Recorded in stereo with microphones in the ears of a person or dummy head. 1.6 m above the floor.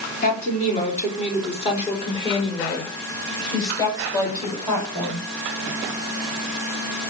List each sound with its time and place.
0.2 s a woman speaking: 45° left (ahead or behind), 4 m; by 5.3 s 10° left (ahead or behind), 7 m